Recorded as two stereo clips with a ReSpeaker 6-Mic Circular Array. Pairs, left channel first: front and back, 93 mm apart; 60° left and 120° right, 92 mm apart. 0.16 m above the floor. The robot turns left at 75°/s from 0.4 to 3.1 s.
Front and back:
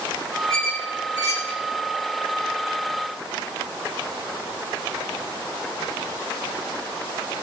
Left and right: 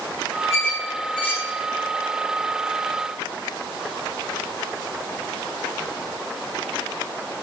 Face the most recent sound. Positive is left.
turn(degrees=-10)